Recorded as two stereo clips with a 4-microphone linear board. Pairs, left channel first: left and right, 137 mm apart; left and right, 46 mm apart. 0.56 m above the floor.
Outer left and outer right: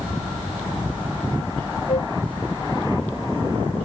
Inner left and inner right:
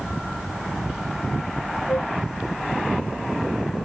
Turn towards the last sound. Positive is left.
turn(degrees=50)  # may be behind; listen again after turning